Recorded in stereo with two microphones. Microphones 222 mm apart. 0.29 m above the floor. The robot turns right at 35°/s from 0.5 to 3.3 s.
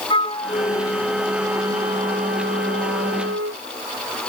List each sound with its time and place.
0.1 s a flute: 155° left; by 3.6 s 105° right